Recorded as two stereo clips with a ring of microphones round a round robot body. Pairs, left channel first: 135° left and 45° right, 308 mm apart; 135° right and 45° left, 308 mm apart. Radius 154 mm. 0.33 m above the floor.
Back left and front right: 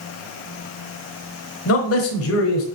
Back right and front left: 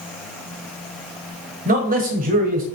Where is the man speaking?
105° left, 1.4 m.